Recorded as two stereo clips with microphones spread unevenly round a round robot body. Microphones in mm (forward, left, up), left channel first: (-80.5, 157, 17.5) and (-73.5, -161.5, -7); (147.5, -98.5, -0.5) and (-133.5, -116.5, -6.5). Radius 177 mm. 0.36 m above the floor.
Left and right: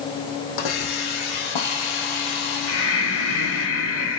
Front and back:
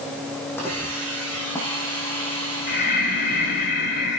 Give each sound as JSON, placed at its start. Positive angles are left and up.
{"t": 0.6, "sound": "a hiss", "azimuth_deg": 90, "distance_m": 4.0}
{"t": 2.7, "sound": "breathing", "azimuth_deg": 50, "distance_m": 2.0}